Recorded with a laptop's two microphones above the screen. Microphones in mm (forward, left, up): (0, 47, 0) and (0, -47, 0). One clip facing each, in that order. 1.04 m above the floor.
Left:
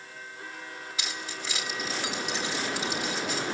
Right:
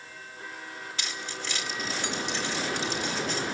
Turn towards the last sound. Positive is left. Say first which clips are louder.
# even
turn(degrees=5)  # may be behind; listen again after turning